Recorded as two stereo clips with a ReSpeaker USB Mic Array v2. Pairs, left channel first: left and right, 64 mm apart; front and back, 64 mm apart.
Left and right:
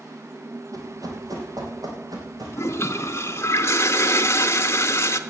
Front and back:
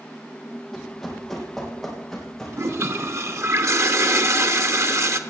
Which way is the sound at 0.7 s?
90° right.